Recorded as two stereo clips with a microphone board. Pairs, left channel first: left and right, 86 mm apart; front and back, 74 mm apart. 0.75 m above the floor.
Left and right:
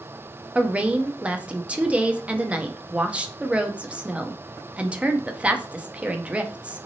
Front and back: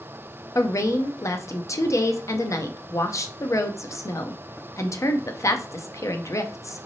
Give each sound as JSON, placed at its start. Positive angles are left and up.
{"t": 0.6, "sound": "a woman speaking", "azimuth_deg": -20, "distance_m": 0.5}